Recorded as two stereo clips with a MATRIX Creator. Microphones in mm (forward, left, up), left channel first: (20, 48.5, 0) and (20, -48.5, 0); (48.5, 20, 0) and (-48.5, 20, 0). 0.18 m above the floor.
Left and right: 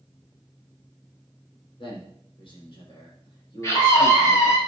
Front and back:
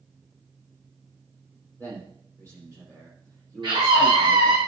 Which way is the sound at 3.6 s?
150° left.